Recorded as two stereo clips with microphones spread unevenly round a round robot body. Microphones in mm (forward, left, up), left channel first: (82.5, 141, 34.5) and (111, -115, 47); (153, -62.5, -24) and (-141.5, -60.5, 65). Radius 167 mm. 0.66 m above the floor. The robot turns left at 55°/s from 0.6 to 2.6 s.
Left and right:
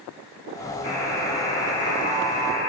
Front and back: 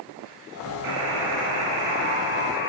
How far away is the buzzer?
About 4 m.